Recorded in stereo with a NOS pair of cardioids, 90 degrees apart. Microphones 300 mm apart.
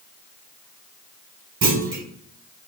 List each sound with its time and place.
1.6 s a clunk: 50° right, 1.3 m